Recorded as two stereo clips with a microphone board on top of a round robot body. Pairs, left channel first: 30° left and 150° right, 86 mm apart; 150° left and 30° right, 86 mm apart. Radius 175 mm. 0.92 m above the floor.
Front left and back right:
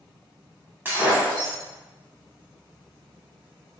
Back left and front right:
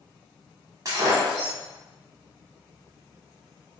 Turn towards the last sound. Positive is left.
turn(degrees=-80)